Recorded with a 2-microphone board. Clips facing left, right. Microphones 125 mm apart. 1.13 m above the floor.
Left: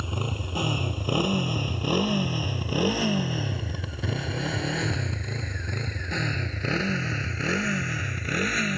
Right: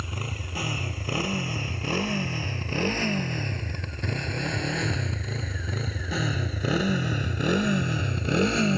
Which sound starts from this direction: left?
A motorcycle, at 0.0 s.